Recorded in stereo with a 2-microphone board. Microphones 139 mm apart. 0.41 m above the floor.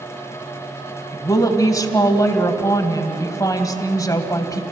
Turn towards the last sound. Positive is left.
turn(degrees=25)  # may be behind; listen again after turning